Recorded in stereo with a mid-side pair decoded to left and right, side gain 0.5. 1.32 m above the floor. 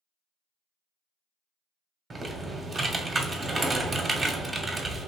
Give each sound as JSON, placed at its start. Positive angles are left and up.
{"t": 2.1, "sound": "typing on a keyboard", "azimuth_deg": -30, "distance_m": 0.6}